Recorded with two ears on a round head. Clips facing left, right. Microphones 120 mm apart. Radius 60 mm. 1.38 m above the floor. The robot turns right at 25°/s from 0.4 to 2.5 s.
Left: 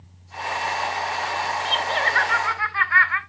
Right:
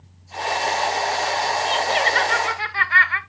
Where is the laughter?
15° right (ahead or behind), 1.5 m; by 3.2 s 35° right (ahead or behind), 1.5 m.